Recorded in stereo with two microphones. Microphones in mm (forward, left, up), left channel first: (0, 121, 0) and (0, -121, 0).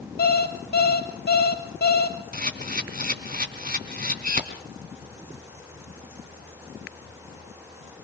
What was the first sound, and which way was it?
An alarm clock, 45° left (ahead or behind).